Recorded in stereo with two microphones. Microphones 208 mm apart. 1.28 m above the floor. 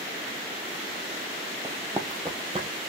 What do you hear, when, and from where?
1.6 s running footsteps: 15° right (ahead or behind), 1.5 m; by 2.7 s 25° right (ahead or behind), 1.4 m